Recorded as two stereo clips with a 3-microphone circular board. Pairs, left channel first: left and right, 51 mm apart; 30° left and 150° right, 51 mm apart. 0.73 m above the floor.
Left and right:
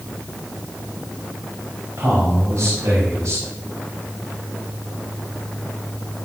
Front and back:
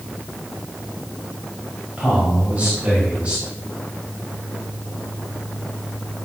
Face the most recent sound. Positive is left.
turn(degrees=-85)